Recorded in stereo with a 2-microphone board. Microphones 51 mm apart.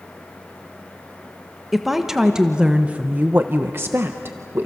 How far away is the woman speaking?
About 1.5 m.